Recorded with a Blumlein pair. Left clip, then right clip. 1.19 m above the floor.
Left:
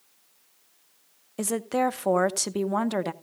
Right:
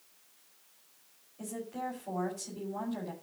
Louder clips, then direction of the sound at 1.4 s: Left 13 dB; 45° left.